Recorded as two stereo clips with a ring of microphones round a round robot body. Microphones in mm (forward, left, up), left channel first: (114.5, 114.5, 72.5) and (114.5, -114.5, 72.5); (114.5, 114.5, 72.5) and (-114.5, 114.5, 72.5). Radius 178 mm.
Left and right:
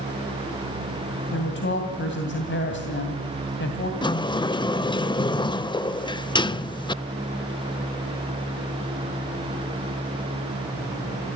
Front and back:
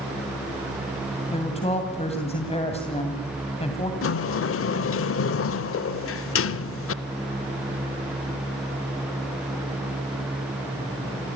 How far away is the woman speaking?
About 2.5 m.